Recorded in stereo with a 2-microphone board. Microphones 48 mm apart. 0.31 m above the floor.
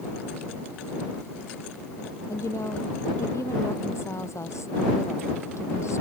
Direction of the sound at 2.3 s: 80° left.